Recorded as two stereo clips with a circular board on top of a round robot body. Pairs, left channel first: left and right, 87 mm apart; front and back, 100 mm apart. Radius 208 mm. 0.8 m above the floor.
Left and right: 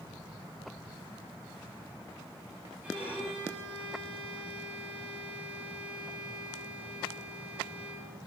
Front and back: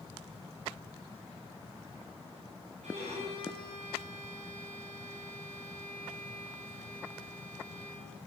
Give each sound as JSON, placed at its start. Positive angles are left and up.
{"t": 2.8, "sound": "a violin", "azimuth_deg": -165, "distance_m": 6.5}